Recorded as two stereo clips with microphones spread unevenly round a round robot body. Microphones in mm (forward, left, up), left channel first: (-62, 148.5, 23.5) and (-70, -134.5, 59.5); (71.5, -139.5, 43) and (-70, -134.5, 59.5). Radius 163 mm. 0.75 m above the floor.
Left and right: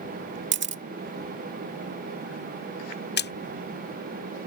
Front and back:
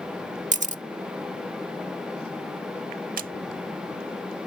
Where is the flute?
I don't hear a flute.